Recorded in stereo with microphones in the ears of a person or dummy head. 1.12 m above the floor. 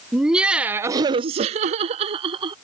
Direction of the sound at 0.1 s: 5° right (ahead or behind).